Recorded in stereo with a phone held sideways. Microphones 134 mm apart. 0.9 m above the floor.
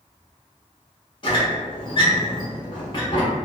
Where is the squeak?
35° left (ahead or behind), 1.2 m.